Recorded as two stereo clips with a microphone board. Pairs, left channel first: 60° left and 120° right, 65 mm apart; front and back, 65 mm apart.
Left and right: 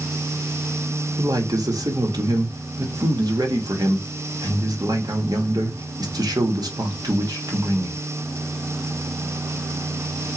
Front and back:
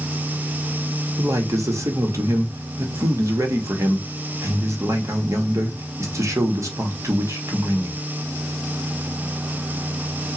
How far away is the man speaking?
About 1.5 m.